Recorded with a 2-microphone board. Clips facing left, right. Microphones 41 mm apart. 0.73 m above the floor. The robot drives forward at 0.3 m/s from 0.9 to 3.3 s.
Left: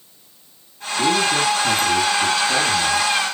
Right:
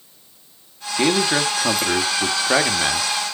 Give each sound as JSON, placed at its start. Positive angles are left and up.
{"t": 1.0, "sound": "a man speaking", "side_deg": -45, "distance_m": 1.5}